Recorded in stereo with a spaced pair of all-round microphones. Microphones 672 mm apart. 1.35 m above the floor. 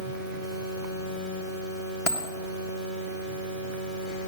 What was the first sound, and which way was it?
A dropped coin, 45° left (ahead or behind).